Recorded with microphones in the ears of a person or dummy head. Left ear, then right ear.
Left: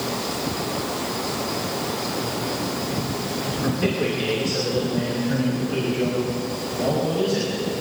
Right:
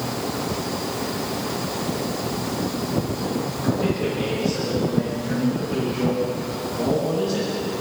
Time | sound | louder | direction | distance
3.6 | a man speaking | even | 30° left (ahead or behind) | 3 m